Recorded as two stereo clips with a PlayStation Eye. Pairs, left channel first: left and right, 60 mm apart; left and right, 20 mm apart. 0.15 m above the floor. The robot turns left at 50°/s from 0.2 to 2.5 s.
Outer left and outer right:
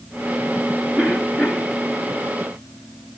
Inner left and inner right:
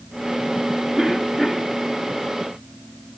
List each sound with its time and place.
1.0 s a cough: 175° right, 2.0 m; by 1.8 s 145° left, 2.0 m